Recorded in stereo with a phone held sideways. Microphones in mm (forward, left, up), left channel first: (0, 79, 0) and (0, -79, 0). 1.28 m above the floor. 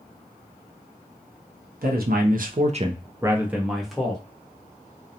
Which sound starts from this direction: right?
A man speaking, at 1.8 s.